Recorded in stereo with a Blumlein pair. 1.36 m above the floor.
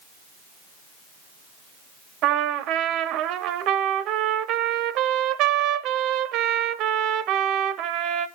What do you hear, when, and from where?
2.2 s a trumpet: 35° right, 0.6 m